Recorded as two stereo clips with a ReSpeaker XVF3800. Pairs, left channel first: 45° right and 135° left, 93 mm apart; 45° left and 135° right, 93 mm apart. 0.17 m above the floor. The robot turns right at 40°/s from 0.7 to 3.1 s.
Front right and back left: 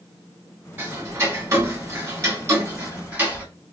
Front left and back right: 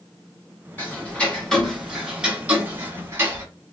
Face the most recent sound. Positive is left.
turn(degrees=-170)